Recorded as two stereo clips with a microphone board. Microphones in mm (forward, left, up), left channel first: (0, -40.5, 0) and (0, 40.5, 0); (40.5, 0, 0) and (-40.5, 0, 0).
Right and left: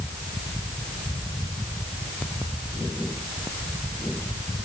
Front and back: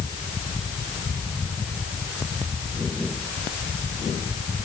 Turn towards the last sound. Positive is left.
No sound to turn to.